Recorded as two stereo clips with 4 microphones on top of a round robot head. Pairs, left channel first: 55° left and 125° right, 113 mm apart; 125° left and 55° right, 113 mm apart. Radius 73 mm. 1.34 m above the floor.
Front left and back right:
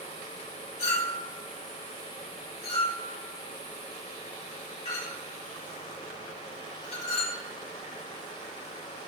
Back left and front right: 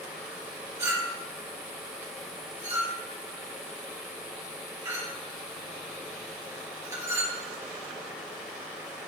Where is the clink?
15° left, 4 m.